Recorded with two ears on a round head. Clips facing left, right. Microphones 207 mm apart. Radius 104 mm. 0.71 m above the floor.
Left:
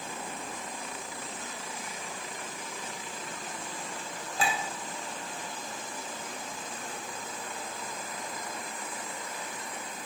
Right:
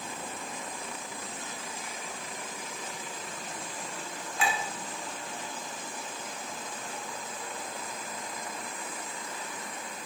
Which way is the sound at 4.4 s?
30° left (ahead or behind).